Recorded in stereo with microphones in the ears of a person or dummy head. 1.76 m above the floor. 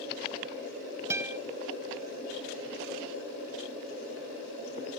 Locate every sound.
1.1 s a guitar: 5° right (ahead or behind), 0.5 m